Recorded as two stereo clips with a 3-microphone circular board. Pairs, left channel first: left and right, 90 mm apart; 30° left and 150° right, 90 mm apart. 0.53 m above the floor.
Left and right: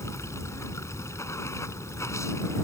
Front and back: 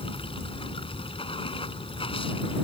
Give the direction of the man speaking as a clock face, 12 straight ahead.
I don't hear a man speaking.